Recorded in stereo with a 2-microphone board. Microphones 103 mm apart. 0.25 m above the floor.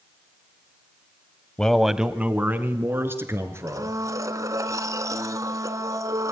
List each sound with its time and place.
1.6 s a man speaking: 10° left (ahead or behind), 1.0 m; by 4.0 s 25° right (ahead or behind), 4 m
3.7 s a blender: 35° right (ahead or behind), 1.0 m